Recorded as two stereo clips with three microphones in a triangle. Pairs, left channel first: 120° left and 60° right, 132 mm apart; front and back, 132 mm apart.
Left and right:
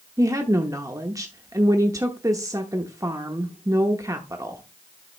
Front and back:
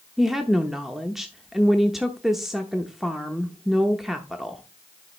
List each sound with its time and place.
0.2 s a woman speaking: 95° right, 0.7 m